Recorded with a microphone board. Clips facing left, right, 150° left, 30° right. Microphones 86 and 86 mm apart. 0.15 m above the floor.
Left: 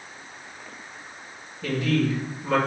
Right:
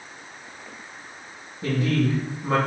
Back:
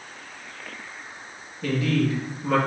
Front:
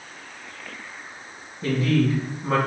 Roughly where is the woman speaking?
Ahead right.